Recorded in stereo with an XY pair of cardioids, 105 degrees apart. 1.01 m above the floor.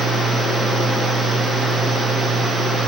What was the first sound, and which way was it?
A fan, 25° right.